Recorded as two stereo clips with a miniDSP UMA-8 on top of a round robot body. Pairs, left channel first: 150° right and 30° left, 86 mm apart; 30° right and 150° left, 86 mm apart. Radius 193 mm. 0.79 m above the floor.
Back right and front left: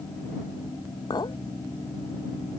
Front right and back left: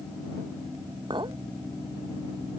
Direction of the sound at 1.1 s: 175° left.